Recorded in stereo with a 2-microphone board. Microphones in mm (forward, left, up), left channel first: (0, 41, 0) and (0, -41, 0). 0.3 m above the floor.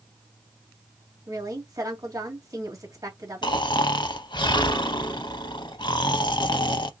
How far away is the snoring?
About 0.5 m.